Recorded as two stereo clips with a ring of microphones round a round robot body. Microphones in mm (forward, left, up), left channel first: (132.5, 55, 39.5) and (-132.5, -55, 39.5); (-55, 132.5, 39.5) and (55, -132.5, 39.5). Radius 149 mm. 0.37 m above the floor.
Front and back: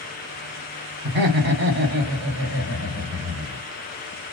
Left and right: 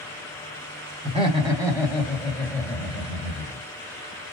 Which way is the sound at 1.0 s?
125° right.